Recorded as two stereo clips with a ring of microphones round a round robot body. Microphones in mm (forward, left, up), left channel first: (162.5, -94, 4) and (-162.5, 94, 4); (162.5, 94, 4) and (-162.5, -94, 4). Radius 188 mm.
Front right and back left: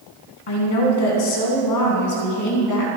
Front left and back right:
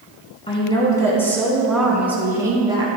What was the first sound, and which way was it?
A woman speaking, 45° right.